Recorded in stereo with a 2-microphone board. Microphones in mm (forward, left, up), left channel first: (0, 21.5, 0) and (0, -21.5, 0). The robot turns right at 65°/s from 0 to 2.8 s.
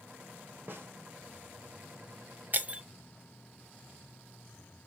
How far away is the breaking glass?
About 0.6 m.